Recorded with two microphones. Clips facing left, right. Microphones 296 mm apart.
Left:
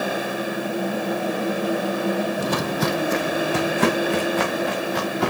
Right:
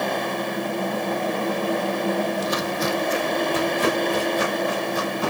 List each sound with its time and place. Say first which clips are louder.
2.4 s footsteps: left 2 dB; 55° left (ahead or behind), 0.9 m; by 5.3 s 80° left, 3.5 m